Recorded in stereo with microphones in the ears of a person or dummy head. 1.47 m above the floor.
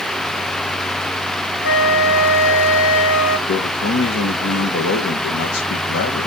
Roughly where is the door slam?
No door slam in this recording.